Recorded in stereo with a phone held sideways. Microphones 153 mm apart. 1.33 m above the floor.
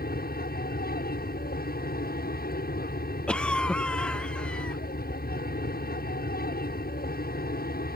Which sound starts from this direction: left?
An aircraft, at 0.0 s.